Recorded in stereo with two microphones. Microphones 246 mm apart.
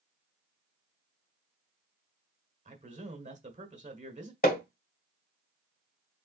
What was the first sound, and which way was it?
A man speaking, 30° right (ahead or behind).